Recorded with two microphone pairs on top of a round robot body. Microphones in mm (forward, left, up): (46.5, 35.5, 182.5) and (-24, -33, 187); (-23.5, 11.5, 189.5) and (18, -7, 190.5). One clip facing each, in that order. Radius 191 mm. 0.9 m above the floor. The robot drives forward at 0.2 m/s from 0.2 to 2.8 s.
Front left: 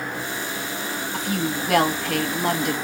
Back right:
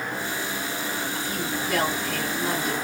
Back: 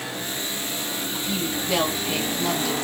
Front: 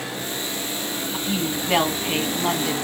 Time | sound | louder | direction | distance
1.1 | a woman speaking | front left 4 dB, front 2 dB | 25° left | 1.6 m